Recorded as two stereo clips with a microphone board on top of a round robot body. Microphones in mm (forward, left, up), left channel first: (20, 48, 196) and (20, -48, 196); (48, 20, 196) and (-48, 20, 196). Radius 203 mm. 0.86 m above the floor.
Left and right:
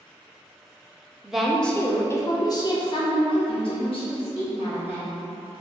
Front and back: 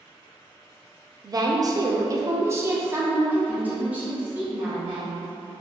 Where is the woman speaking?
170° right, 0.9 m; by 5.2 s 100° left, 2 m.